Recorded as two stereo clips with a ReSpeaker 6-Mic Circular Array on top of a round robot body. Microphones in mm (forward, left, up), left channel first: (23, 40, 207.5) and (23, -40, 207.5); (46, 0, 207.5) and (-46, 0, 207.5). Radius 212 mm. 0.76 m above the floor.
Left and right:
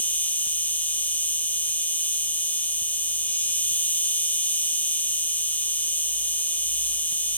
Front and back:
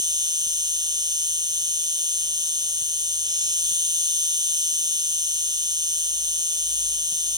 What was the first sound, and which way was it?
An insect, 155° left.